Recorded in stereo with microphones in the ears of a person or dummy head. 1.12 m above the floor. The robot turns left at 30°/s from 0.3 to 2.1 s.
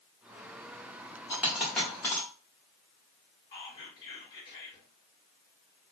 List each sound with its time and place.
1.3 s a dropped coin: 10° right (ahead or behind), 1.0 m; by 2.3 s 15° left (ahead or behind), 1.0 m
3.5 s whispering: 25° left (ahead or behind), 1.5 m